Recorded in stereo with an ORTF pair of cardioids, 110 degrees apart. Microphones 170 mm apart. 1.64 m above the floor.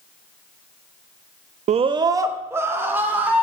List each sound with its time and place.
1.7 s a scream: 45° right, 0.5 m; by 3.4 s 10° right, 3 m